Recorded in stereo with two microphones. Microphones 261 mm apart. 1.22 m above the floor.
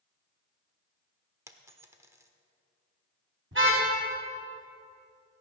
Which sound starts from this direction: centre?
A dropped coin, at 1.5 s.